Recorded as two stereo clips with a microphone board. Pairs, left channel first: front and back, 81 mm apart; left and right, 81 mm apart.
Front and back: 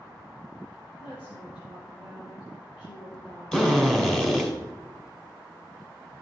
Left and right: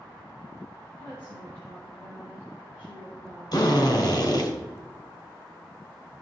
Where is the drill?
80° left, 2.5 m.